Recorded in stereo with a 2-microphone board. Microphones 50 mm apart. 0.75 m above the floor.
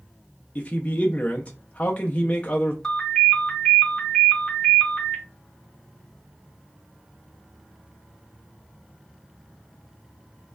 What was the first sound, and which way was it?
A man speaking, 30° left (ahead or behind).